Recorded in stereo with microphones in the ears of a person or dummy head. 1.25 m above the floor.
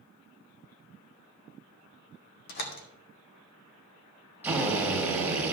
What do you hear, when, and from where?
2.5 s a door slam: 50° left (ahead or behind), 1.3 m
4.4 s a drill: 10° right (ahead or behind), 2 m